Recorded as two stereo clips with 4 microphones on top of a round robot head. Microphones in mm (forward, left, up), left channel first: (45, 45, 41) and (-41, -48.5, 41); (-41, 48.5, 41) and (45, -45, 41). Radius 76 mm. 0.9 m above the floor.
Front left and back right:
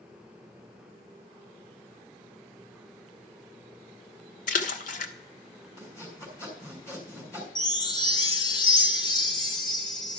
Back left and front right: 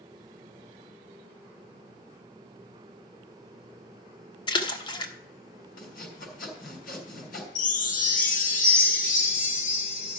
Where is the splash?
75° left, 1.3 m.